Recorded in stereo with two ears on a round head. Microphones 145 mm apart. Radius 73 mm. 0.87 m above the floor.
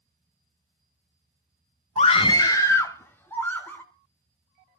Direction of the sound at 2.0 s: 40° left (ahead or behind).